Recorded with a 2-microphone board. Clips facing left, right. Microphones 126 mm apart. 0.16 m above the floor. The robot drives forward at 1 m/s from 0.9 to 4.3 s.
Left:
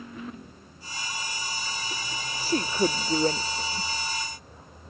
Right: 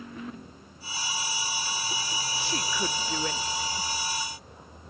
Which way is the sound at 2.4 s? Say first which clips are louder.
Left 8 dB; 40° left (ahead or behind).